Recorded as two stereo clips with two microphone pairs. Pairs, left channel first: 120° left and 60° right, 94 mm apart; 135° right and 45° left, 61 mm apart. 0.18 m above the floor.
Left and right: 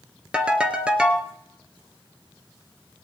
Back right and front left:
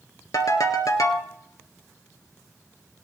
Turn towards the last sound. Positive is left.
turn(degrees=-135)